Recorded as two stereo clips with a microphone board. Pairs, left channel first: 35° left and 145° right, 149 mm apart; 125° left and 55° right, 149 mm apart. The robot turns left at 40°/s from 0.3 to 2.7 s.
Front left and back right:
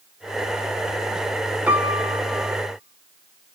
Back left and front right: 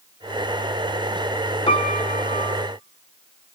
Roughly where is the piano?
Behind left.